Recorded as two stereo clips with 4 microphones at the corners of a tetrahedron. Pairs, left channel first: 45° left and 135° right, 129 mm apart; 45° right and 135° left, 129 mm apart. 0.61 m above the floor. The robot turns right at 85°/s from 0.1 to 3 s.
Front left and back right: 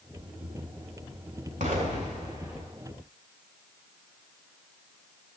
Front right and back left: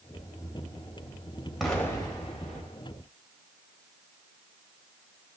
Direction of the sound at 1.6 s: 140° right.